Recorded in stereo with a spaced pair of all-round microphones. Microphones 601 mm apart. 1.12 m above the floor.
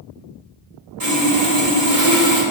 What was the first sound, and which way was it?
Sawing, 80° right.